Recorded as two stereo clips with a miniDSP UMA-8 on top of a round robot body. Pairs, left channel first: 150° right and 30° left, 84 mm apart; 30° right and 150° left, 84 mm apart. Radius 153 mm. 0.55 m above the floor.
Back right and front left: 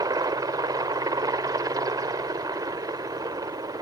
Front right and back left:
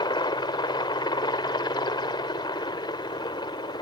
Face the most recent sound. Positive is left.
turn(degrees=-10)